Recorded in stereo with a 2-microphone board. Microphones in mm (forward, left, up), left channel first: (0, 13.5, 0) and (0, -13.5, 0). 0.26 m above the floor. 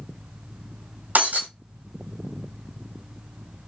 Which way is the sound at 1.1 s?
80° right.